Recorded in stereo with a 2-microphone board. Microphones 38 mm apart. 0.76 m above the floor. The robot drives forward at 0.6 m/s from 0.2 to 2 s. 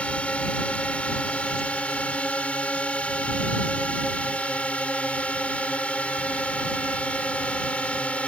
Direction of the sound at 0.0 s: 35° left (ahead or behind).